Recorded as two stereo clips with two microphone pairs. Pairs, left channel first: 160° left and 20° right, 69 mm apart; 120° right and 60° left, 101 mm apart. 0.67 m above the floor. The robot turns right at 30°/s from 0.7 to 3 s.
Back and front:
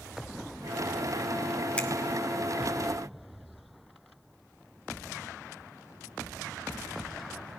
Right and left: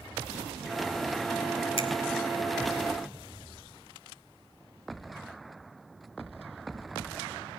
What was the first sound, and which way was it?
A finger snap, 130° right.